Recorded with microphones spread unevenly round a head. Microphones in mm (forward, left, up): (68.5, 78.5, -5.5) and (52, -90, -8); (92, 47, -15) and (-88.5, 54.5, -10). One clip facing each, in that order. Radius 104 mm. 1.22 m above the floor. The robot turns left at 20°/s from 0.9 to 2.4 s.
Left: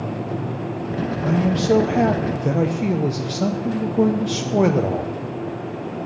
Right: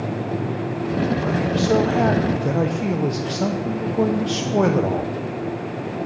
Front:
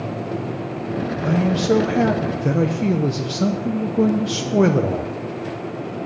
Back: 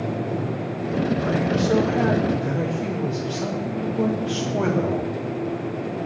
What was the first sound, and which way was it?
A man speaking, 30° left.